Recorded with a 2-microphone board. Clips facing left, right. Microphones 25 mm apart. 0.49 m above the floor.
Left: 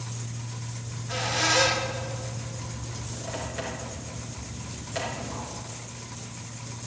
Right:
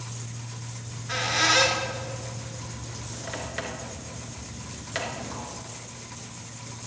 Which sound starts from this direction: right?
A squeak, at 0.8 s.